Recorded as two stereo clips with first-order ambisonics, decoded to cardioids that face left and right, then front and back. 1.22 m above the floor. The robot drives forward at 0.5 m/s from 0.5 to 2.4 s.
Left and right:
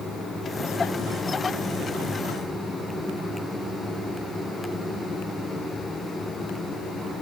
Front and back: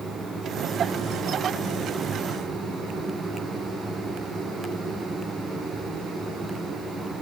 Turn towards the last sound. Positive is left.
No sound to turn to.